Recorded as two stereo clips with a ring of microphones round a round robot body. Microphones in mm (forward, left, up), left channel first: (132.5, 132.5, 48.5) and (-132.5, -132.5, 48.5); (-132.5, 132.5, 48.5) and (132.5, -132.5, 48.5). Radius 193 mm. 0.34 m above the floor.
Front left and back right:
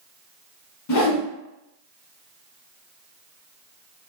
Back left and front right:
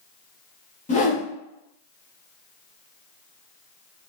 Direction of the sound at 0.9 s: 70° left.